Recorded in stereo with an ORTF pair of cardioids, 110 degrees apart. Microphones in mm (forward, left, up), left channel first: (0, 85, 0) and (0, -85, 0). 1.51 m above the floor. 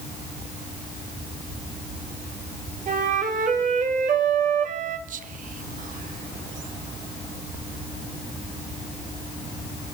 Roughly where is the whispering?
Ahead right.